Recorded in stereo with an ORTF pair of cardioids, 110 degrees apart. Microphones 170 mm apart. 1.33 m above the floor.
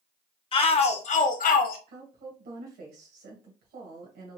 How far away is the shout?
About 1.2 m.